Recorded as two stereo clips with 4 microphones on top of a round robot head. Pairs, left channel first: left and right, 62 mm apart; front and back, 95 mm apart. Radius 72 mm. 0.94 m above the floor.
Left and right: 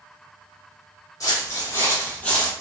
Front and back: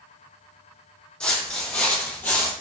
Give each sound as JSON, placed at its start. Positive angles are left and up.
{"t": 1.2, "sound": "footsteps", "azimuth_deg": 80, "distance_m": 1.4}